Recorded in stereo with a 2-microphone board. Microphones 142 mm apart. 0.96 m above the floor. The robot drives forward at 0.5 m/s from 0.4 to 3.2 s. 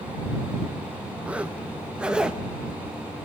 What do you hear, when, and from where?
1.2 s a zipper: 10° right (ahead or behind), 1.0 m; by 2.4 s 5° right (ahead or behind), 1.4 m